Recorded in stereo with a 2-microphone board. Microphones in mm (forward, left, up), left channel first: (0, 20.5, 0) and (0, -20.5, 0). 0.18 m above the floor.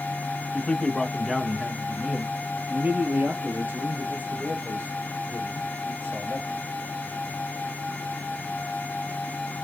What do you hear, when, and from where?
0.5 s a man speaking: 25° left (ahead or behind), 1.1 m; by 6.6 s 70° right (ahead or behind), 3.5 m